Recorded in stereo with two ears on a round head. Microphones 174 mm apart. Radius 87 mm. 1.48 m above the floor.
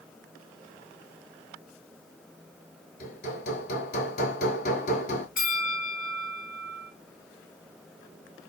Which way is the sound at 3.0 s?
55° left (ahead or behind).